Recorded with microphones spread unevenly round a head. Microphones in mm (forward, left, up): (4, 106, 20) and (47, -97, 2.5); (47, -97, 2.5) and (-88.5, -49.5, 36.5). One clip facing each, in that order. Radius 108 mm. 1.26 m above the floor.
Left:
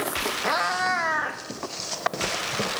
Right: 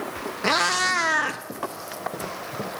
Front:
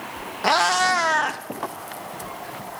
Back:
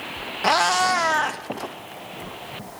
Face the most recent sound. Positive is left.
turn(degrees=-120)